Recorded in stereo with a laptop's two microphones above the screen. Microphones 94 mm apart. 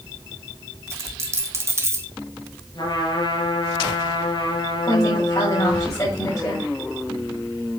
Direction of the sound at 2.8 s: 55° left (ahead or behind).